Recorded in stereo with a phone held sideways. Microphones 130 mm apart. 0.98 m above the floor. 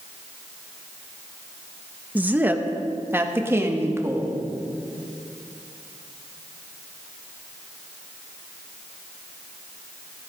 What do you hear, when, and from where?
2.1 s a woman speaking: 10° right (ahead or behind), 0.9 m; by 4.4 s 20° right (ahead or behind), 2 m